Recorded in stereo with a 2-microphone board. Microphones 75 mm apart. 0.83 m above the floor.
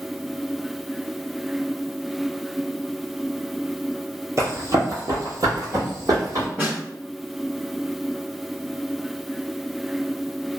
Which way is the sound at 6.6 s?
30° right (ahead or behind).